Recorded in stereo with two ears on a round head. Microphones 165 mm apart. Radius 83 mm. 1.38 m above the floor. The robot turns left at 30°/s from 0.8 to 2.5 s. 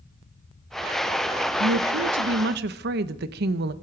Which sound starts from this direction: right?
A woman speaking, at 1.6 s.